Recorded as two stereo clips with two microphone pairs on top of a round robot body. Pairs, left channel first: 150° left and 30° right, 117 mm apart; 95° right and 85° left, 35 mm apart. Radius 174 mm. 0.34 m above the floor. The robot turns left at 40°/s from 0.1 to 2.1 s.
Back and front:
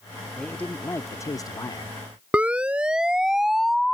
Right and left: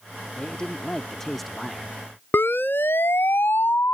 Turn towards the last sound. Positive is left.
turn(degrees=-120)